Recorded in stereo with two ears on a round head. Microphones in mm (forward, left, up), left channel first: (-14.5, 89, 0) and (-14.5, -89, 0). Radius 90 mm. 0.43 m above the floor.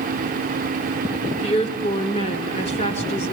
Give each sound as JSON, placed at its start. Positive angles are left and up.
{"t": 1.4, "sound": "a woman speaking", "side_deg": 35, "distance_m": 1.5}